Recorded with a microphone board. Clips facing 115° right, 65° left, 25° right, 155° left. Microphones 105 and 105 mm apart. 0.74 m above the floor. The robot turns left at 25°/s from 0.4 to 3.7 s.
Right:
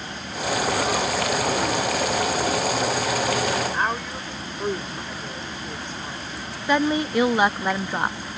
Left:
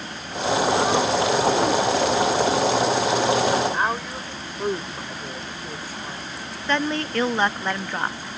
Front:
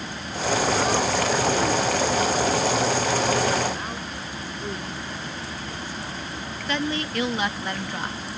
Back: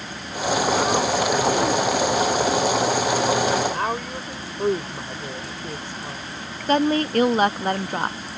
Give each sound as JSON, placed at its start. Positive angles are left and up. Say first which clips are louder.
{"t": 3.7, "sound": "a woman speaking", "louder": "left 1 dB, back 7 dB", "azimuth_deg": 150}
{"t": 6.7, "sound": "a woman speaking", "louder": "right 3 dB, back 8 dB", "azimuth_deg": 175}